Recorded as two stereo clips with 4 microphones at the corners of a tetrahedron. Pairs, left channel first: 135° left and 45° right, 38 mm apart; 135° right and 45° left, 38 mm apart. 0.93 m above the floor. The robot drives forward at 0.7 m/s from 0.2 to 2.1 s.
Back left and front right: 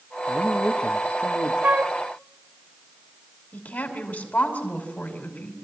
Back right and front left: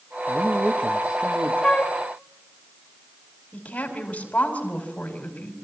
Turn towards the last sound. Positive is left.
turn(degrees=170)